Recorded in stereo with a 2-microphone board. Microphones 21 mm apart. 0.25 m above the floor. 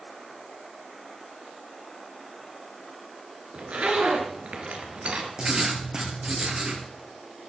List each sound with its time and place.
3.5 s a zipper: 70° right (ahead or behind), 3 m
5.4 s writing: 40° right (ahead or behind), 3 m